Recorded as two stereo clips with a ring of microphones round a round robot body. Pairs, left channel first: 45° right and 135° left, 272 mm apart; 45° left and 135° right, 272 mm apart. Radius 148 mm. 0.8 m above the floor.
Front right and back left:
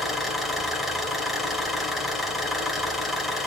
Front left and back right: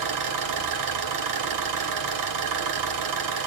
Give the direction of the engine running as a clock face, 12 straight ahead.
5 o'clock.